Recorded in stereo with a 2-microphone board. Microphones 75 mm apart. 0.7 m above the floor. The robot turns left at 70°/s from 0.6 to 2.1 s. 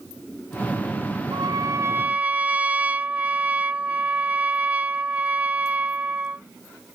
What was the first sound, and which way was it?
A trumpet, 100° right.